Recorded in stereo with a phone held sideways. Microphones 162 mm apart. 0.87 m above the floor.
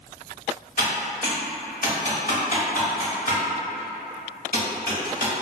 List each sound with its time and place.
0.8 s typing on a keyboard: 60° left (ahead or behind), 0.9 m